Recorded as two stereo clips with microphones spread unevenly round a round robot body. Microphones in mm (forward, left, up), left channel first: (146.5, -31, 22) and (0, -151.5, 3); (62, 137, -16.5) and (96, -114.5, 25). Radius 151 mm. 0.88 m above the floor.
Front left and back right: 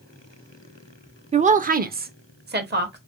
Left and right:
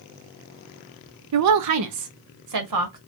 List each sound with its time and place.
1.3 s a woman speaking: 95° right, 0.5 m; by 3.0 s 115° right, 1.4 m